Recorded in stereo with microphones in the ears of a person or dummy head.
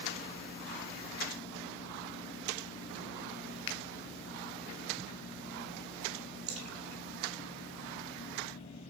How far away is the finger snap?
About 0.7 m.